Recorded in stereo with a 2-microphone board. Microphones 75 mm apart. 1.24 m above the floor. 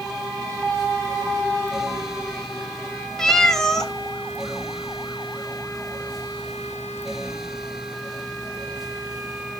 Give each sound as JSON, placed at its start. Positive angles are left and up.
{"t": 3.2, "sound": "a cat meowing", "side_deg": 5, "distance_m": 0.7}